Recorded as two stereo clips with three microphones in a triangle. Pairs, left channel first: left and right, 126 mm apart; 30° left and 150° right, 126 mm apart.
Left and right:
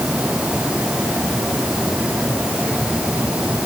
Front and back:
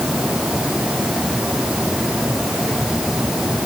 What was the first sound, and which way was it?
Only background noise.